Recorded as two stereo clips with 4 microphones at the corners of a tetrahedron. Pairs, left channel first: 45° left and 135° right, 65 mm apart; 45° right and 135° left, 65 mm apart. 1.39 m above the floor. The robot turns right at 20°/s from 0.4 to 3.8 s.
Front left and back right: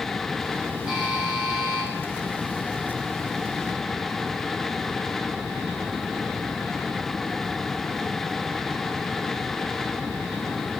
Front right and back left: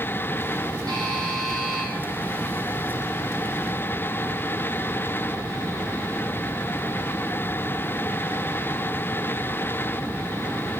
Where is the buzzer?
145° left, 5.5 m; by 1.9 s 165° left, 5.5 m.